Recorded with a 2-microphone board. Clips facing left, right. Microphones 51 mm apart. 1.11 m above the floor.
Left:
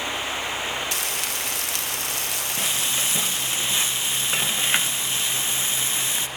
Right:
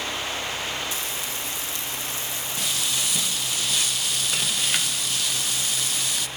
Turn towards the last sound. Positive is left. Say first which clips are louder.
# left 1 dB
turn(degrees=25)  # may be behind; listen again after turning